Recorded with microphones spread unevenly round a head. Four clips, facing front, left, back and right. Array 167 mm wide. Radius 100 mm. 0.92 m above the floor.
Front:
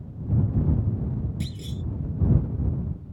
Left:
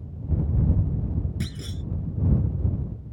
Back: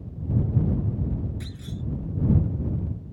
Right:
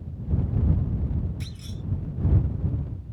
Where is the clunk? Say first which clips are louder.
Left 5 dB, front 2 dB; 60° left.